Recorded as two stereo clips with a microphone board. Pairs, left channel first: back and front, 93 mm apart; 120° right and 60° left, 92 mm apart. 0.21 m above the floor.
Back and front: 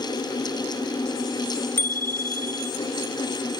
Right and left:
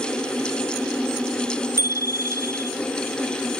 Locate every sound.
1.8 s a bicycle bell: 115° left